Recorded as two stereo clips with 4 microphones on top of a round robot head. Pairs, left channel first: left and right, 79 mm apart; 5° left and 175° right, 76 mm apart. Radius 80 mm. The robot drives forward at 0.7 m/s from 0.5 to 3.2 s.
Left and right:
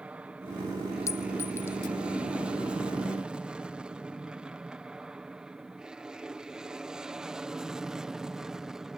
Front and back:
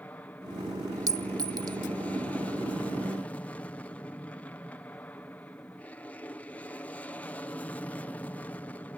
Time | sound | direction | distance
0.0 | an aircraft | 35° right | ?
1.1 | a clink | 150° left | ?